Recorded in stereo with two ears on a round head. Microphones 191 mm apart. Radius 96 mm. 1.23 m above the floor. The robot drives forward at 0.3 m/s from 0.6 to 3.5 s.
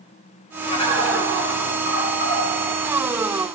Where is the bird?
25° left (ahead or behind), 8 m; by 2.4 s 20° left (ahead or behind), 8.5 m.